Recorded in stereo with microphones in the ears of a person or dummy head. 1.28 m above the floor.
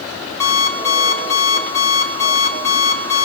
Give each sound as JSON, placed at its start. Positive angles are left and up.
{"t": 0.4, "sound": "an alarm clock", "side_deg": 15, "distance_m": 2.5}